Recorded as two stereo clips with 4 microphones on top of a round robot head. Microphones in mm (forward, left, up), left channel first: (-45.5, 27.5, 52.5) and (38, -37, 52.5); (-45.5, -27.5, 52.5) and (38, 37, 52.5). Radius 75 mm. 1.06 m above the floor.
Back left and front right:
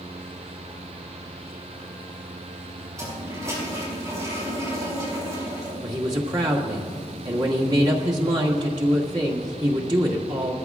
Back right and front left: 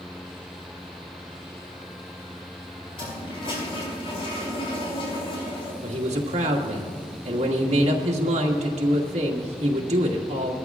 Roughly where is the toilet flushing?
Right.